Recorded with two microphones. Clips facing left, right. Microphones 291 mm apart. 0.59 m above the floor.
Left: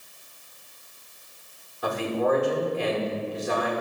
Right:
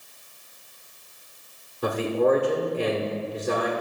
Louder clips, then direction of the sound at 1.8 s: Right 3 dB; 45° right (ahead or behind).